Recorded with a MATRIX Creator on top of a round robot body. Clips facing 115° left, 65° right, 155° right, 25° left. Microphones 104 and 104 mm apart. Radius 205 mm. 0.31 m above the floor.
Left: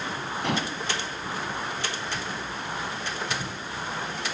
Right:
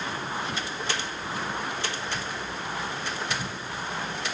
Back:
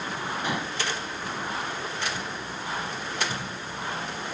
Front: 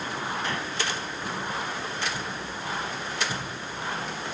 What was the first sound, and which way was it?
Dishes clattering, 125° left.